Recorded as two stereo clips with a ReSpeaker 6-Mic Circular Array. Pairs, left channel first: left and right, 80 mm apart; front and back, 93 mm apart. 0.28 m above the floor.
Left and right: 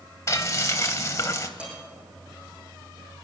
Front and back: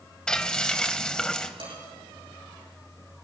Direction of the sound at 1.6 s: 165° right.